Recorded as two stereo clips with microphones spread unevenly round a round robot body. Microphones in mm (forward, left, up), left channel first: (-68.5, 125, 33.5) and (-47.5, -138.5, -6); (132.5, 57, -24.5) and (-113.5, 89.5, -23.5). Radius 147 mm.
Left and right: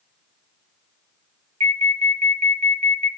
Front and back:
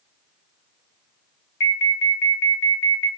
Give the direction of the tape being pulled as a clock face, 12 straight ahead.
No tape being pulled in this recording.